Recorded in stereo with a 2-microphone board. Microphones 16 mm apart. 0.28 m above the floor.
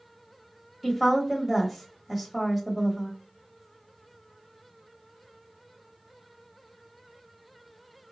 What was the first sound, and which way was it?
A woman speaking, 10° right (ahead or behind).